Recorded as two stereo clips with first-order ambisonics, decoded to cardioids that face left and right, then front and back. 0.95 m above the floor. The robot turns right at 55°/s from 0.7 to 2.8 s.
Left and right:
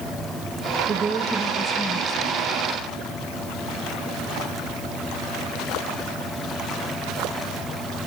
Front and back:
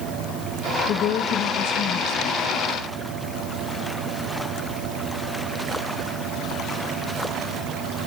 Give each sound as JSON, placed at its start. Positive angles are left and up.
{"t": 0.9, "sound": "a woman speaking", "azimuth_deg": -30, "distance_m": 0.9}